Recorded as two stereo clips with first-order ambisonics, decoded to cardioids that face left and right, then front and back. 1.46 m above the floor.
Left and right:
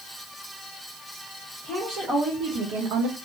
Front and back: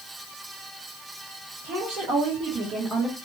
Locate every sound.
1.6 s a woman speaking: 160° right, 1.5 m; by 3.2 s 75° right, 0.6 m